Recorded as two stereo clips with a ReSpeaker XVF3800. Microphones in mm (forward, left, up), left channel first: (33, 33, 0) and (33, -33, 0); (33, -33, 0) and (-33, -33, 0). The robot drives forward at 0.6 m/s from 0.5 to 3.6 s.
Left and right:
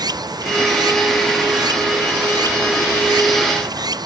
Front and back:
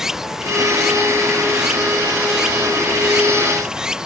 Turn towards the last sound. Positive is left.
turn(degrees=-100)